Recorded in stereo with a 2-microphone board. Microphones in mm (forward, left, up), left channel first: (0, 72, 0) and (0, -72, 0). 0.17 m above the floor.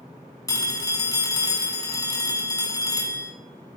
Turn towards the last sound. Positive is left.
turn(degrees=25)  # may be behind; listen again after turning